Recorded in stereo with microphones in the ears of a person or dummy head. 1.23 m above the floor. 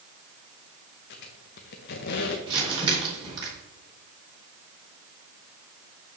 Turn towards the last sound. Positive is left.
turn(degrees=-25)  # may be behind; listen again after turning